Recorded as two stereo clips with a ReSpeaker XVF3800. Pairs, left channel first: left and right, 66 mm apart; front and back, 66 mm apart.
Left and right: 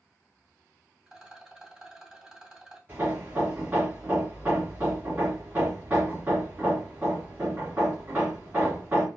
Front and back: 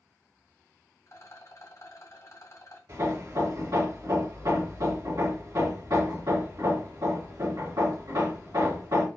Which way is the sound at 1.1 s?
10° right.